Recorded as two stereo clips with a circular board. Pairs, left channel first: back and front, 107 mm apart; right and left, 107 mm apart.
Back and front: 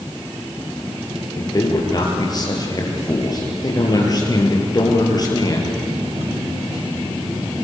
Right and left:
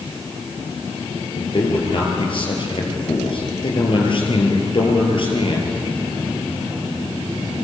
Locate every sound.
1.4 s a man speaking: 125° right, 5.5 m